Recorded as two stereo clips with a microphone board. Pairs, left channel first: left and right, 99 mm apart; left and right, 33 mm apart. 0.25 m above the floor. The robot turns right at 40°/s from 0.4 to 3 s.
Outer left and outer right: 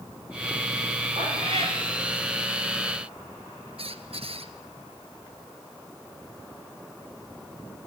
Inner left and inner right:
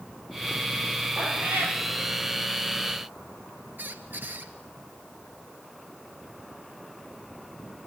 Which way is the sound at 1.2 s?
70° right (ahead or behind).